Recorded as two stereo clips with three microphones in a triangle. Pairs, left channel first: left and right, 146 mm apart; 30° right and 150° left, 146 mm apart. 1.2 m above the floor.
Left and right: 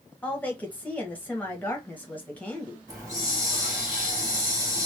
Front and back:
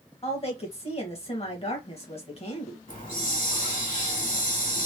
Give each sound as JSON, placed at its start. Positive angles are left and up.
{"t": 0.2, "sound": "a woman speaking", "azimuth_deg": 10, "distance_m": 1.2}
{"t": 2.9, "sound": "a hiss", "azimuth_deg": -25, "distance_m": 1.7}